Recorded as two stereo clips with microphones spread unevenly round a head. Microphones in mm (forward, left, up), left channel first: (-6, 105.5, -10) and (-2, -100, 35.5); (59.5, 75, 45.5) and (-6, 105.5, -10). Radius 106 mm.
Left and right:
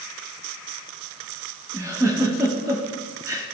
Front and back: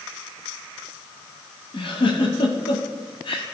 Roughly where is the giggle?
Ahead.